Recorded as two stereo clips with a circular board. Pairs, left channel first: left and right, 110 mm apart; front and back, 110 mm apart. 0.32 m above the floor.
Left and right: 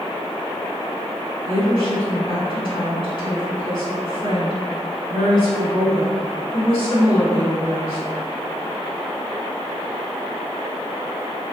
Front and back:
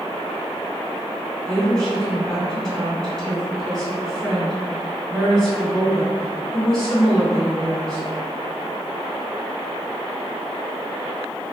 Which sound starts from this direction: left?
A woman speaking, at 1.4 s.